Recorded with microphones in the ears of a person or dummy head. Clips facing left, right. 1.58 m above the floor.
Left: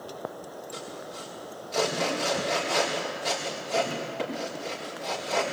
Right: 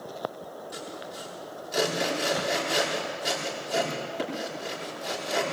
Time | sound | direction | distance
0.7 | sawing | 15° right (ahead or behind) | 5.5 m